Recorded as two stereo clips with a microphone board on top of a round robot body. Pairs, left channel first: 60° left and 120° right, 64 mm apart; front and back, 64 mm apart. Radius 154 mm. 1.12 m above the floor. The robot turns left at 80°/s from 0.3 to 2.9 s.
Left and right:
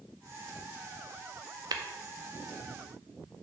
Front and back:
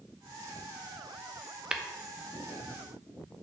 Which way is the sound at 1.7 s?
105° right.